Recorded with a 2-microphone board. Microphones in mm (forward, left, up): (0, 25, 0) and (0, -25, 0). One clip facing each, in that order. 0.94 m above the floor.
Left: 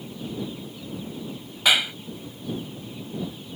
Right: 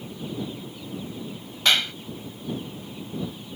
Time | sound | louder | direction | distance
1.6 | a clap | left 1 dB | 10° left (ahead or behind) | ?